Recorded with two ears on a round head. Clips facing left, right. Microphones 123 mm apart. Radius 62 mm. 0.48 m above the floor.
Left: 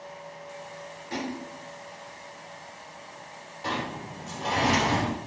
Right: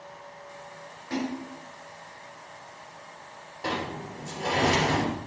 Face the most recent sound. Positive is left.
turn(degrees=-60)  # may be behind; listen again after turning